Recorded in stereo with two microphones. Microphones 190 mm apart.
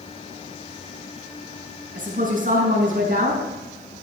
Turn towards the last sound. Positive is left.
turn(degrees=-45)  # may be behind; listen again after turning